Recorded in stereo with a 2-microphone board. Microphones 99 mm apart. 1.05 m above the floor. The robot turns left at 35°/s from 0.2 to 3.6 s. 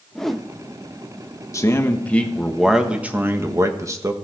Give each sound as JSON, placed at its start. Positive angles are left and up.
{"t": 0.1, "sound": "a whoosh", "side_deg": 5, "distance_m": 0.5}
{"t": 1.5, "sound": "a man speaking", "azimuth_deg": 35, "distance_m": 1.3}